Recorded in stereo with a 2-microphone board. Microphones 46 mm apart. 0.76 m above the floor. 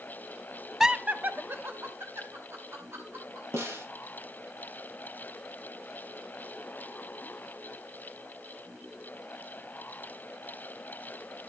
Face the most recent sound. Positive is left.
turn(degrees=-80)